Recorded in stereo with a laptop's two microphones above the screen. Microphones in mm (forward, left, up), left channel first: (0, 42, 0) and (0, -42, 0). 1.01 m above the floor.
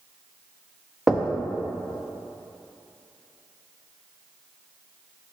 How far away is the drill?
No drill in this recording.